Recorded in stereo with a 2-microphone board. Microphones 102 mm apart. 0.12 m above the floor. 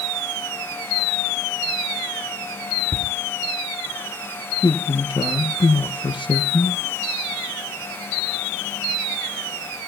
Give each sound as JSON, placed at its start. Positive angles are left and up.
{"t": 2.9, "sound": "laughter", "side_deg": 30, "distance_m": 2.5}
{"t": 4.6, "sound": "a man speaking", "side_deg": 55, "distance_m": 3.0}